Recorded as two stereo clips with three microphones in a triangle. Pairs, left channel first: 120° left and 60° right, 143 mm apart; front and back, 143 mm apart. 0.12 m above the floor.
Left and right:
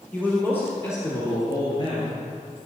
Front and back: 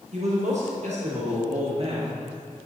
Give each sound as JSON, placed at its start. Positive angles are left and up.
{"t": 0.1, "sound": "a man speaking", "azimuth_deg": -165, "distance_m": 2.5}